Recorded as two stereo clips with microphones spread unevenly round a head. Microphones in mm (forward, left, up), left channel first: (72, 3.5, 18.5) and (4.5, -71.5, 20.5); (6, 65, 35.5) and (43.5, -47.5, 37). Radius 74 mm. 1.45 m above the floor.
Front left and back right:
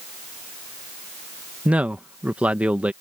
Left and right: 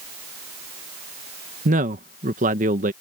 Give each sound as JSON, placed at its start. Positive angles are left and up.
{"t": 1.6, "sound": "a man speaking", "azimuth_deg": -55}